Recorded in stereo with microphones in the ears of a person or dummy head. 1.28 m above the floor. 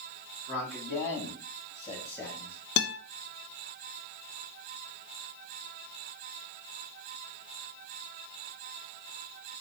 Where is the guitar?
70° left (ahead or behind), 1.4 m.